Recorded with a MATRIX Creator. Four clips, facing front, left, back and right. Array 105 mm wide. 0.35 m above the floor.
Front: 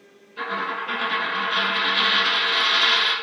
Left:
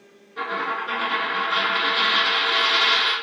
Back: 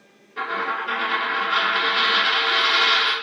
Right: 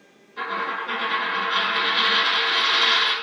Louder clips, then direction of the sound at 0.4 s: Left 1 dB, back 2 dB; 165° left.